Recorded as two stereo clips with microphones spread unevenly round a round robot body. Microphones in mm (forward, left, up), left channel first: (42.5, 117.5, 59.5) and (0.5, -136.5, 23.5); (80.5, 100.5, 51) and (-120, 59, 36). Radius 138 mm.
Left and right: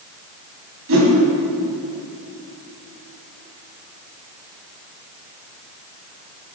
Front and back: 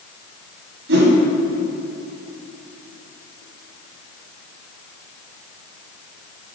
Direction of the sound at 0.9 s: 130° right.